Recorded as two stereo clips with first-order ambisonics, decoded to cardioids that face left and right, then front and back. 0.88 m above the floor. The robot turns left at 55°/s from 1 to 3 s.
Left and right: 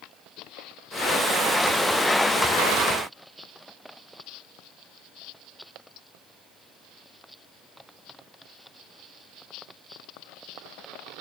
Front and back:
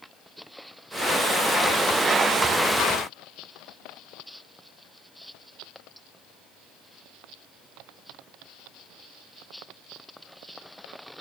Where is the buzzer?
I don't hear a buzzer.